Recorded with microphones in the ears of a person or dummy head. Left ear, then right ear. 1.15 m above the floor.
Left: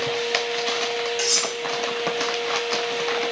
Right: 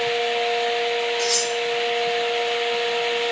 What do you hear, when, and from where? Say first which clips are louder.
1.2 s cutlery clinking: even; 75° left (ahead or behind), 1.6 m